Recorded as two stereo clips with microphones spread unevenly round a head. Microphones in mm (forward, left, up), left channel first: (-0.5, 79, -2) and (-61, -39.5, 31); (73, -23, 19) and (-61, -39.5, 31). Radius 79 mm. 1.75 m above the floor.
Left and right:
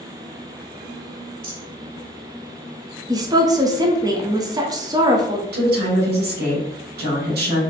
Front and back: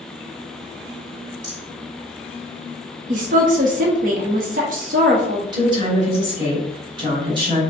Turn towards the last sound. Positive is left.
turn(degrees=-115)